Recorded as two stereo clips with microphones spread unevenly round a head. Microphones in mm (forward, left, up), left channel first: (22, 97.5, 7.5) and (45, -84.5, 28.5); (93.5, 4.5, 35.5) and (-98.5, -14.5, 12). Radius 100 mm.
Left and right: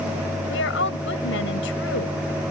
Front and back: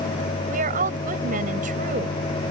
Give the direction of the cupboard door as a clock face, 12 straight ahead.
I don't hear a cupboard door.